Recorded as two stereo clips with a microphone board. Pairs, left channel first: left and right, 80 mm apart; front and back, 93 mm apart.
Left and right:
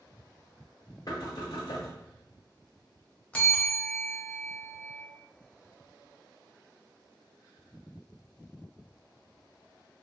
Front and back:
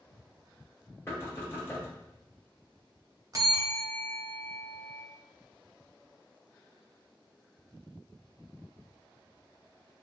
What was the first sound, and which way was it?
Knocking, 60° left.